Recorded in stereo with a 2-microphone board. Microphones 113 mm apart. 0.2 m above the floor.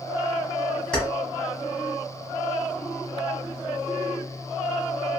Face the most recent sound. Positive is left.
turn(degrees=10)  # may be behind; listen again after turning